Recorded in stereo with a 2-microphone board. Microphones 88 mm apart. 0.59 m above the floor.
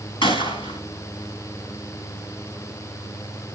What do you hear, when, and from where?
0.2 s a gunshot: 80° left, 2.5 m